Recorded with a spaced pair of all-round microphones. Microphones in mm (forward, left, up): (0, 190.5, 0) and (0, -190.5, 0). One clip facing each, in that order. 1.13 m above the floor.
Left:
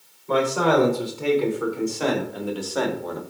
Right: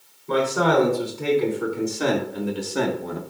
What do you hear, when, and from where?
0.3 s a man speaking: 30° right (ahead or behind), 4 m; by 3.2 s 40° right (ahead or behind), 1.5 m